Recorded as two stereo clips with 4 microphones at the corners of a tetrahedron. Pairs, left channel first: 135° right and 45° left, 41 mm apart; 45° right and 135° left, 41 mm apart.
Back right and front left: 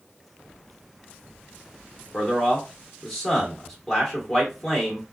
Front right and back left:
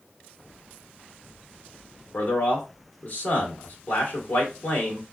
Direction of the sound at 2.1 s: 60° right.